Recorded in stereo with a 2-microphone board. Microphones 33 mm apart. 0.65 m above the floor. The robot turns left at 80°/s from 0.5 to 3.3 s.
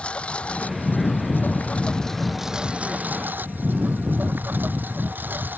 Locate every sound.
0.0 s a lawn mower: 145° left; by 5.6 s 80° right